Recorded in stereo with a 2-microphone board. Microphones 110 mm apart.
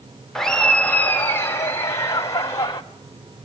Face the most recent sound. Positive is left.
turn(degrees=30)  # may be behind; listen again after turning